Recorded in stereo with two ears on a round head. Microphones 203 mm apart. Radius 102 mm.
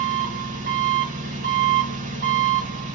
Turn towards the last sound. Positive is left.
turn(degrees=-35)  # may be behind; listen again after turning